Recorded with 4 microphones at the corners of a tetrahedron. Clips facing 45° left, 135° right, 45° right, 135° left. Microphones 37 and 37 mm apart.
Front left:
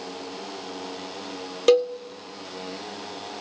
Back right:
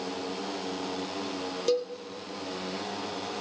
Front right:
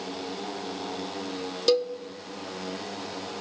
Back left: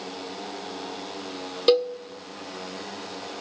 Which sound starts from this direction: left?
A cowbell, at 1.7 s.